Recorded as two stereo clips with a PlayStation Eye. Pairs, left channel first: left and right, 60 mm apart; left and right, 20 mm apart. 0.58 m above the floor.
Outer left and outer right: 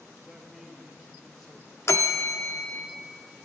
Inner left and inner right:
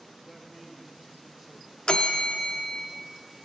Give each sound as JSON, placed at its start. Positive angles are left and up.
{"t": 0.3, "sound": "a man speaking", "side_deg": -5, "distance_m": 1.9}
{"t": 1.9, "sound": "a bell", "side_deg": 50, "distance_m": 0.6}